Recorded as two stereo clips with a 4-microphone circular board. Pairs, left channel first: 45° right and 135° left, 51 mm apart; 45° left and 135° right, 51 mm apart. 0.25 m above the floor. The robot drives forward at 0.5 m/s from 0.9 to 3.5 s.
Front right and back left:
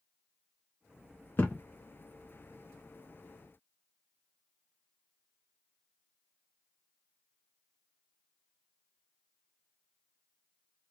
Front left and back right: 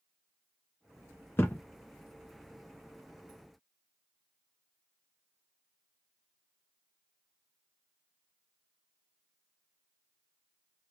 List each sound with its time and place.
1.4 s a thud: 5° left, 0.9 m